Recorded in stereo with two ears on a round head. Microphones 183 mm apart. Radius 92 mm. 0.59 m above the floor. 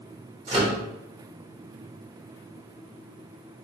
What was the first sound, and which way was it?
A microwave, 30° right (ahead or behind).